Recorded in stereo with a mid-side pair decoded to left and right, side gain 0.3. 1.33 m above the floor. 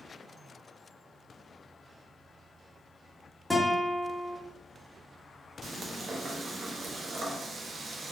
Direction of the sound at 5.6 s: 70° right.